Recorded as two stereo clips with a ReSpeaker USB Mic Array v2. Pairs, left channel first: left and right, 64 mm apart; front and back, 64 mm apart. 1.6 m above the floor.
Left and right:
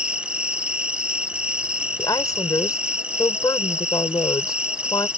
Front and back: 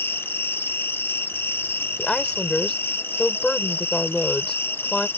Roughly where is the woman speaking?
Left.